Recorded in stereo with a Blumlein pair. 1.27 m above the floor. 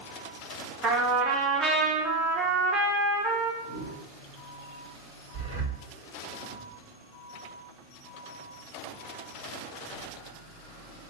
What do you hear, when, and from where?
0.8 s a trumpet: 25° right, 0.7 m
3.6 s a whoosh: 55° right, 1.1 m
5.3 s breathing: 55° right, 1.9 m